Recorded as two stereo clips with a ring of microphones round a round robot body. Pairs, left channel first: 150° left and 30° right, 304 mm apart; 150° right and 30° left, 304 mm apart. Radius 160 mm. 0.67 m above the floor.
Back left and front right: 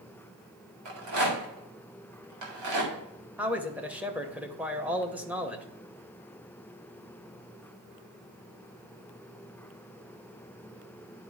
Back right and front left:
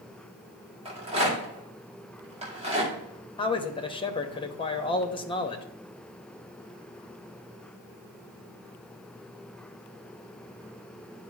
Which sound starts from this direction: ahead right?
A rattle, at 0.8 s.